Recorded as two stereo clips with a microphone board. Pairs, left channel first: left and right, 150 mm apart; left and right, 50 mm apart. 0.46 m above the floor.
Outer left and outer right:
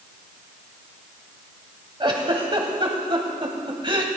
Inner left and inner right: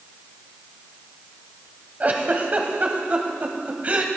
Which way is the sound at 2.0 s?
35° right (ahead or behind).